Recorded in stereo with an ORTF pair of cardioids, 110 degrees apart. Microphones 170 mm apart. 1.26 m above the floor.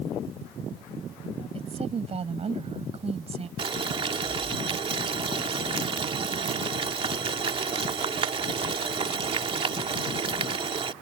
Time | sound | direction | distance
1.6 | a woman speaking | 35° right | ?
3.6 | boiling | 35° right | ?